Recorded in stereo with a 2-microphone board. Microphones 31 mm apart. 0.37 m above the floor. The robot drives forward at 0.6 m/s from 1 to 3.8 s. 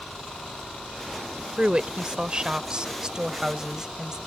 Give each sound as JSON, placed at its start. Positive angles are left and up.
{"t": 1.6, "sound": "a woman speaking", "side_deg": -35}